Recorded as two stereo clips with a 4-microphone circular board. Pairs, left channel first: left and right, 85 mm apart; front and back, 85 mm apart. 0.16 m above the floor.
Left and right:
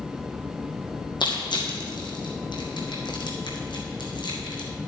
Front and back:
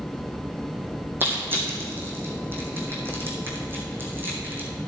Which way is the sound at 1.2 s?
115° left.